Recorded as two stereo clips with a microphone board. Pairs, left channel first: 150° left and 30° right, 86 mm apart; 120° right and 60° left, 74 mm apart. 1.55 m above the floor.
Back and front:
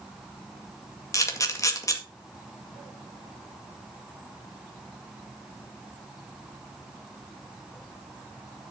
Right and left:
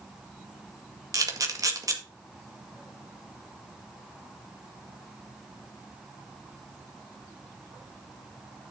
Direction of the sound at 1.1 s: 100° left.